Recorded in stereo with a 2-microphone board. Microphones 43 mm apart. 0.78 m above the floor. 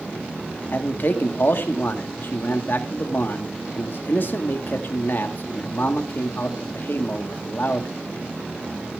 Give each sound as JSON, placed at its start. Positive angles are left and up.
{"t": 0.7, "sound": "a man speaking", "side_deg": 50, "distance_m": 1.7}